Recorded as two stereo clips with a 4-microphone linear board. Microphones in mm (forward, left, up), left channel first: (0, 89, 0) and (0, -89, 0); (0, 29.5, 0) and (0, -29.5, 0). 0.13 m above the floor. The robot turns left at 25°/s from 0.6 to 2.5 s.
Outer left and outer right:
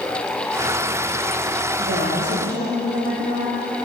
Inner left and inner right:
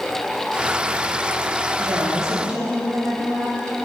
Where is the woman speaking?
60° right (ahead or behind), 4 m; by 3.6 s 70° right (ahead or behind), 4 m.